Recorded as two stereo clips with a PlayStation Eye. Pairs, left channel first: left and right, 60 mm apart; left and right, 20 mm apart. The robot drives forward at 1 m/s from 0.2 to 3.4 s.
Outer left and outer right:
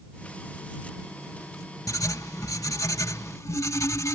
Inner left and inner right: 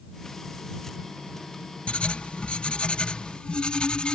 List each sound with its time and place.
1.9 s writing: 75° left (ahead or behind); by 4.2 s 60° left (ahead or behind)